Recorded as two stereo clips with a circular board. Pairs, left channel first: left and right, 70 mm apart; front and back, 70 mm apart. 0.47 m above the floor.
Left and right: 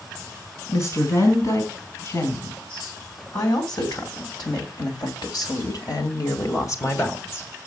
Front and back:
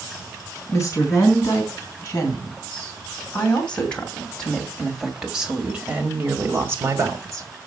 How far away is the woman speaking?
About 4 m.